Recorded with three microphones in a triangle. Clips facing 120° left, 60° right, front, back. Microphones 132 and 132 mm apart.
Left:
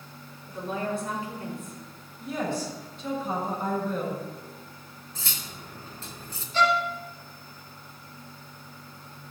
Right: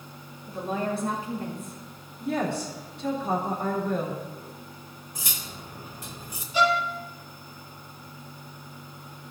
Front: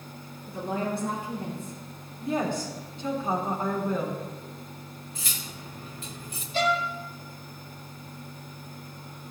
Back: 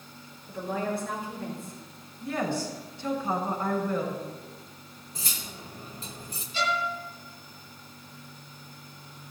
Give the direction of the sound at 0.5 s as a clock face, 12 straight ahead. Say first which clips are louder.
Right 2 dB, front 1 dB; 12 o'clock.